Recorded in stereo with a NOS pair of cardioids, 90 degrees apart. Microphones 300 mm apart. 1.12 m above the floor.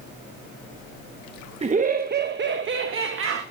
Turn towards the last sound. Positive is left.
turn(degrees=-45)